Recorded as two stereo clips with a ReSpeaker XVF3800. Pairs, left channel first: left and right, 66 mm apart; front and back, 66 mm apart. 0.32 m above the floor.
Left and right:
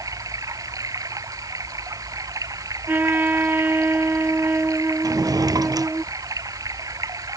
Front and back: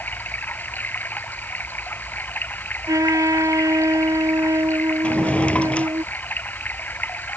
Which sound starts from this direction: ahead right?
Running water, at 0.0 s.